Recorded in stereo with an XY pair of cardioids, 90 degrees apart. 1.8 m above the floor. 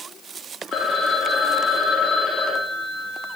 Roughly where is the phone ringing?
Left.